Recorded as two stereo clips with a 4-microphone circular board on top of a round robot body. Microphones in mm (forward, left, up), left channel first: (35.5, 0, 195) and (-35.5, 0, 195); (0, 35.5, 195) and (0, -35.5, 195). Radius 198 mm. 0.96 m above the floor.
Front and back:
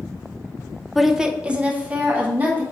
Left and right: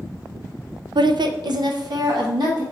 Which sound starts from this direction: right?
A woman speaking, at 0.9 s.